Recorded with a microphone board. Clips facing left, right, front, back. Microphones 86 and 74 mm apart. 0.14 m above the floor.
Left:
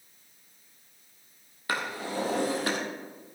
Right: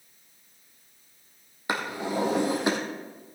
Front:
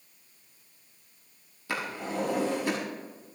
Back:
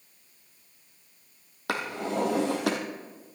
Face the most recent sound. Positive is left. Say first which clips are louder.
# right 3 dB, back 3 dB
turn(degrees=-160)